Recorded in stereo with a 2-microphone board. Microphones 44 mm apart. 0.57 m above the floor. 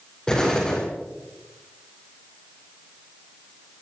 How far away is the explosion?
About 6 m.